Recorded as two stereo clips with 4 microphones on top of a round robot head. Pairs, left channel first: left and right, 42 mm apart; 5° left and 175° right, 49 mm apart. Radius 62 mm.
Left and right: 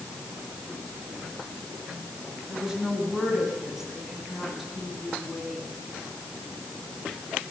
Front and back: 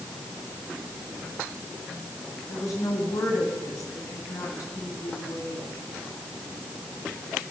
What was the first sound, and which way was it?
A woman speaking, 15° right.